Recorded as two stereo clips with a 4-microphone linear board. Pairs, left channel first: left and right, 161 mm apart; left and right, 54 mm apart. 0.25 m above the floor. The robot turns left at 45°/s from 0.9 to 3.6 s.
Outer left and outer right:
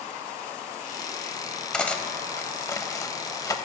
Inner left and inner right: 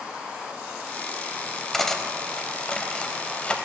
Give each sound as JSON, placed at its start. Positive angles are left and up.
{"t": 1.7, "sound": "cutlery clinking", "side_deg": 5, "distance_m": 0.5}